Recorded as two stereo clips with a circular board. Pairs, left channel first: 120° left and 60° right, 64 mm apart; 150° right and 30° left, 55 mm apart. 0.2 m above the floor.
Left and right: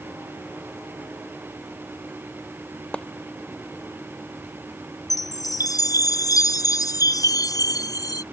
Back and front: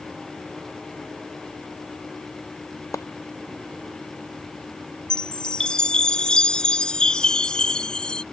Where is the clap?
170° right.